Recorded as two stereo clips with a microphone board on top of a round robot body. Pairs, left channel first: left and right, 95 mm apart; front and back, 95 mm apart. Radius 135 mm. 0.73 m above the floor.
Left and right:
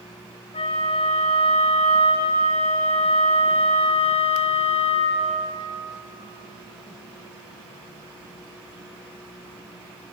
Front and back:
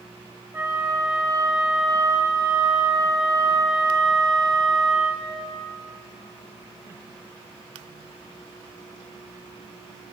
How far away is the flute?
About 4.5 m.